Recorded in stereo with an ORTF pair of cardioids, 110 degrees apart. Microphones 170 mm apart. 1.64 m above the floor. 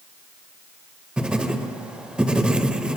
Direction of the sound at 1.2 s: 5° right.